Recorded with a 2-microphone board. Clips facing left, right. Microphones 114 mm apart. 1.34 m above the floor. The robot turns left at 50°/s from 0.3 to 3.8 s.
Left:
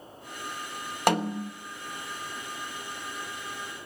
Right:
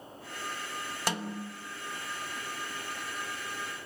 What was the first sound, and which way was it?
A snare drum, 60° left (ahead or behind).